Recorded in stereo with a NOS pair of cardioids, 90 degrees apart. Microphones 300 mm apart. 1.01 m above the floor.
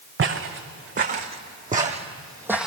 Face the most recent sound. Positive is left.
turn(degrees=0)